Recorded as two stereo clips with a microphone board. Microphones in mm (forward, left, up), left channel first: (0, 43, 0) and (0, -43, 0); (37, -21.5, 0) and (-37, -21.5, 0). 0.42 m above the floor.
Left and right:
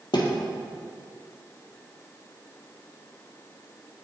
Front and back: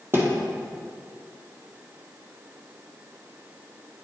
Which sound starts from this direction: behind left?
A thud, at 0.1 s.